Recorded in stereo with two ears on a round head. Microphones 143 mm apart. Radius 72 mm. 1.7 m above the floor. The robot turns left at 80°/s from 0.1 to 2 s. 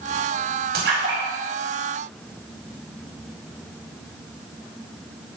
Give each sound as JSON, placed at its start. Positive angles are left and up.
{"t": 0.7, "sound": "a splash", "side_deg": -70, "distance_m": 10.0}